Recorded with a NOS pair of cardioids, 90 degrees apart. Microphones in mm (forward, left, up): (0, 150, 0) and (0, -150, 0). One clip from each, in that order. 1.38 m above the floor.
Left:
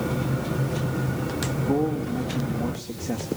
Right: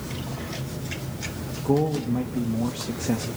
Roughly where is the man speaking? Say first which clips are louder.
Right 3 dB; ahead right.